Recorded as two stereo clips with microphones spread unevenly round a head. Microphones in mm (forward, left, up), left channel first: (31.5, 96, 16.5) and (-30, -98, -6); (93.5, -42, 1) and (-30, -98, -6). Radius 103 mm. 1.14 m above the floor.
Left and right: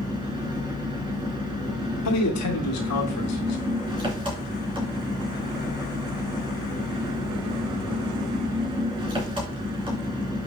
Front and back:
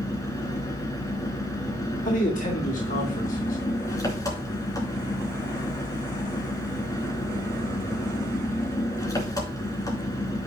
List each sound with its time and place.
0.0 s an engine running: 40° right, 3.5 m
2.0 s a man speaking: 80° left, 2 m